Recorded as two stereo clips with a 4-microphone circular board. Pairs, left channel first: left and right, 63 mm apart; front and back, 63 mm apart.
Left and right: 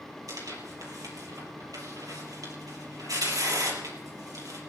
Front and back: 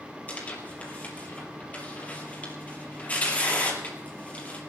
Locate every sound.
0.3 s tearing paper: 65° right, 4 m